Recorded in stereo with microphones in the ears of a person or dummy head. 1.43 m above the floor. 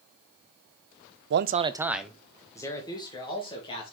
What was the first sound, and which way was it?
A man speaking, 60° right (ahead or behind).